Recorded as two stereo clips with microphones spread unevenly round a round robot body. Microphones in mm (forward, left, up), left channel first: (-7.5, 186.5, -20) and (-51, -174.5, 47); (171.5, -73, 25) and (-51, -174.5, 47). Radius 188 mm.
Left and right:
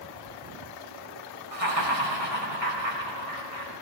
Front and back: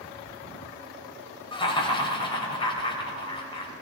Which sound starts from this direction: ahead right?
Laughter, at 1.5 s.